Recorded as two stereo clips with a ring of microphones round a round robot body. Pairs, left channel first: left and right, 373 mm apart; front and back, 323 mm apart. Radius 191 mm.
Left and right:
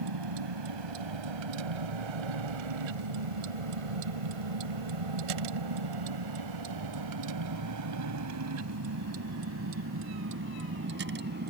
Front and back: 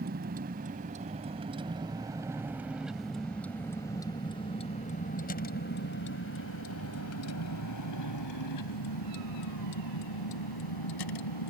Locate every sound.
0.0 s a vehicle: 115° right; by 11.5 s 25° right